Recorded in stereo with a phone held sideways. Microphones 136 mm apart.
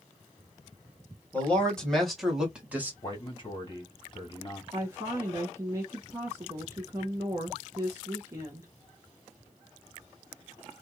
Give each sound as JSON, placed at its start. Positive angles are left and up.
{"t": 1.3, "sound": "a man speaking", "side_deg": 10, "distance_m": 1.9}
{"t": 3.0, "sound": "a man speaking", "side_deg": 35, "distance_m": 1.9}
{"t": 4.7, "sound": "a woman speaking", "side_deg": -20, "distance_m": 1.2}